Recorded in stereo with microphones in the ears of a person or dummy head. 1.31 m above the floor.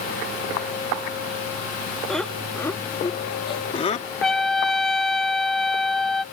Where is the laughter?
5° left (ahead or behind); by 4.1 s 40° left (ahead or behind).